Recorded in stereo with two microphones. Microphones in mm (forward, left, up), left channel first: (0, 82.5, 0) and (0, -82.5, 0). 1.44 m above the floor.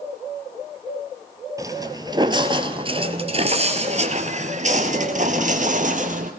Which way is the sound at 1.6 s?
20° right (ahead or behind).